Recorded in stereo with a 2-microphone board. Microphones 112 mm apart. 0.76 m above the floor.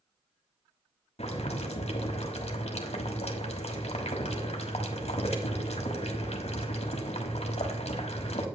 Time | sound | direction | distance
1.2 | boiling | 75° left (ahead or behind) | 1.3 m